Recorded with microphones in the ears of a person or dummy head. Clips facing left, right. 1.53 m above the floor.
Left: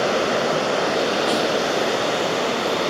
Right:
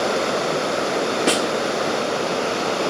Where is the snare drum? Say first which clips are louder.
Right 1 dB; 35° right (ahead or behind), 1.4 m.